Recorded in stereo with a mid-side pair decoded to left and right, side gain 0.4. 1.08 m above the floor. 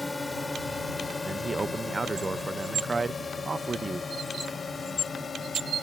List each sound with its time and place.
0.0 s a drone: 25° left; by 5.8 s 45° left
1.2 s a man speaking: 30° right